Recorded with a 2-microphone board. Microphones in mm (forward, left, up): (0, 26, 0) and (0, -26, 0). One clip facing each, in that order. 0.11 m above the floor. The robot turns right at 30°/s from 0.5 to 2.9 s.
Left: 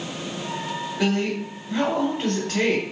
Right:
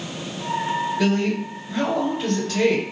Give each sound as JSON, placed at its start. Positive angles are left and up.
{"t": 1.0, "sound": "a woman speaking", "azimuth_deg": 15, "distance_m": 1.4}